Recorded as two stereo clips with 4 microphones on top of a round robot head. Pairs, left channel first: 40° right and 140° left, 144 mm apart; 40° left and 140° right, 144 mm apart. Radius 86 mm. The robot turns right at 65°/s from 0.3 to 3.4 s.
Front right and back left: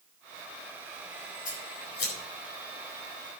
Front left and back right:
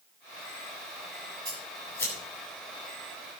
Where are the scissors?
75° right, 8.5 m; by 2.1 s 35° right, 8.5 m.